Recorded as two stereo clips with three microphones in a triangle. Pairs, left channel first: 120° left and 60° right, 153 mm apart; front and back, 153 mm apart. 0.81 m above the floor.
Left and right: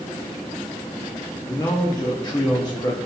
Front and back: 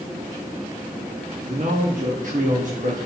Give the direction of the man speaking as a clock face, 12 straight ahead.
6 o'clock.